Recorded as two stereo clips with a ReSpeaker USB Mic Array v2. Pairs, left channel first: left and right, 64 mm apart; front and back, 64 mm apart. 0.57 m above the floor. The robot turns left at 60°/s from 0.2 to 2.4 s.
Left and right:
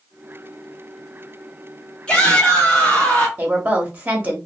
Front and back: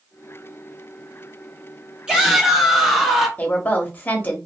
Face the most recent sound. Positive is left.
turn(degrees=-40)